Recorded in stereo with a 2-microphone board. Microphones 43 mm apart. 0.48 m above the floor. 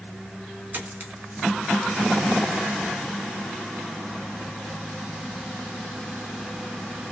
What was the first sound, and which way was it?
A dropped coin, 50° right (ahead or behind).